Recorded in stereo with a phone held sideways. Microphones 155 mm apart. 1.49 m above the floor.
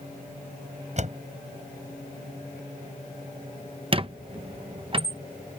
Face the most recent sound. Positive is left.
turn(degrees=-35)  # may be behind; listen again after turning